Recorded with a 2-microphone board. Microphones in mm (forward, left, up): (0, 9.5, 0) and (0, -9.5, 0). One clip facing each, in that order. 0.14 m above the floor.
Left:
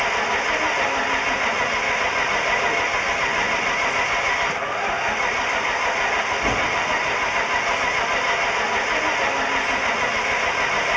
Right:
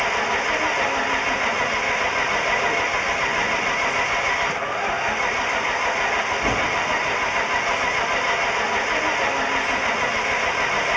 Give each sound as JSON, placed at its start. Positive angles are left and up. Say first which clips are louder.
{"t": 0.0, "sound": "an engine running", "louder": "even", "side_deg": 0}